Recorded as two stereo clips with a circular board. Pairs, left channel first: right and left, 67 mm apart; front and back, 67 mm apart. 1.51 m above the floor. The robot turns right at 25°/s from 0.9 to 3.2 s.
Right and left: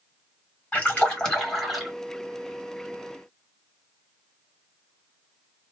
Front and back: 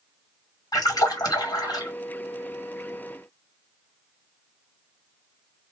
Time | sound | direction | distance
0.7 | a splash | 25° right | 1.8 m